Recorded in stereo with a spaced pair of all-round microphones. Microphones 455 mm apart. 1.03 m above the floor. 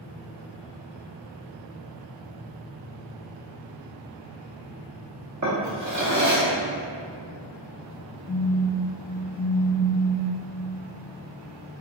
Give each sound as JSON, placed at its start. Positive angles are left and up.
{"t": 5.4, "sound": "a drawer", "side_deg": -40, "distance_m": 0.6}
{"t": 8.3, "sound": "a phone buzzing", "side_deg": 55, "distance_m": 0.8}